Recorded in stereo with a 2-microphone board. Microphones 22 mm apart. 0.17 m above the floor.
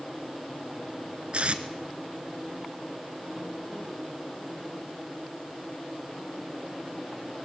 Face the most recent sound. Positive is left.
turn(degrees=-55)  # may be behind; listen again after turning